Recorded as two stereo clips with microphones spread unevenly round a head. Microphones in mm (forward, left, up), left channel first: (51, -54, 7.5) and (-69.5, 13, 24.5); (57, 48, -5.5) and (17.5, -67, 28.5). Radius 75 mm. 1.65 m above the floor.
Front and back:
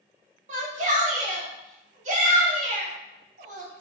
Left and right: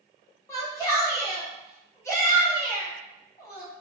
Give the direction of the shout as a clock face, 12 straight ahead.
7 o'clock.